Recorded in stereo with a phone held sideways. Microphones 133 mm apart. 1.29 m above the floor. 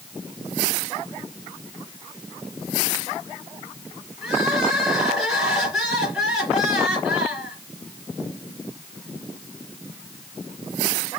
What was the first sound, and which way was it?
Crying, 5° right (ahead or behind).